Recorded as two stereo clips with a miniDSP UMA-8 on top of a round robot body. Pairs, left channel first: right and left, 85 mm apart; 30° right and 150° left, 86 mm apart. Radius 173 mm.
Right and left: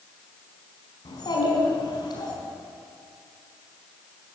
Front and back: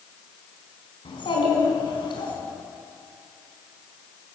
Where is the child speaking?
55° right, 4.5 m.